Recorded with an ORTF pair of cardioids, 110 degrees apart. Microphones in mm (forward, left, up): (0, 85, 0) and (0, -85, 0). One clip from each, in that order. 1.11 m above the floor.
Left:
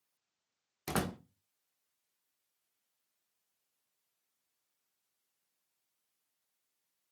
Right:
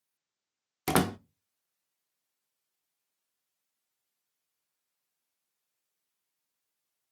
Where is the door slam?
45° right, 0.5 m.